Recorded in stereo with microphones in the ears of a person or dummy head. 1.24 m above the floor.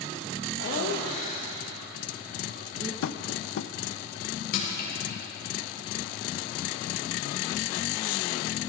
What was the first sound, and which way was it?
Laughter, 50° left (ahead or behind).